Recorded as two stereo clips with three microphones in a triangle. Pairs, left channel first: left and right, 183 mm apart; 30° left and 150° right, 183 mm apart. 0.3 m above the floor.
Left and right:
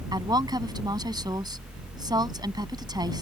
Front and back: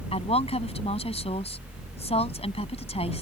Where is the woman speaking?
25° right.